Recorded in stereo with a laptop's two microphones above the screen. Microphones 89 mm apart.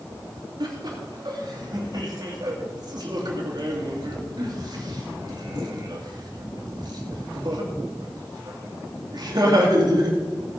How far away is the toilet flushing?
No toilet flushing in this recording.